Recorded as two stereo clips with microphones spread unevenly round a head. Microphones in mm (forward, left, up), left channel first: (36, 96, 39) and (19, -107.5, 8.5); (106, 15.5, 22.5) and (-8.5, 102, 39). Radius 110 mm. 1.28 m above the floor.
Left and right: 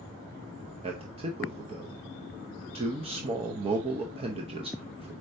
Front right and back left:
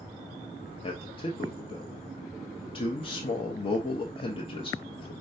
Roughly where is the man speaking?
Ahead right.